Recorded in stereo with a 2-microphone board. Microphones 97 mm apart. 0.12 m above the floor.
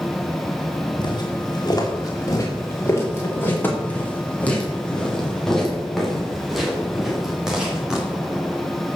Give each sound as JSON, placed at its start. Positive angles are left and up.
{"t": 1.0, "sound": "footsteps", "side_deg": 50, "distance_m": 4.5}